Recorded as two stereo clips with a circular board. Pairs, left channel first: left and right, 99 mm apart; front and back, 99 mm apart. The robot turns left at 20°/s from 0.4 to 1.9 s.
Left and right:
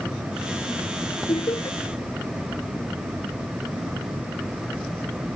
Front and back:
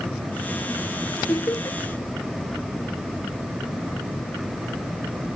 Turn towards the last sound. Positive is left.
turn(degrees=45)